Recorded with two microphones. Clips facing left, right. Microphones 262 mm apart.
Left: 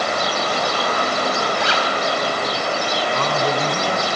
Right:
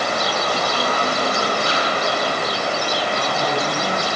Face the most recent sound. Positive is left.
turn(degrees=70)  # may be behind; listen again after turning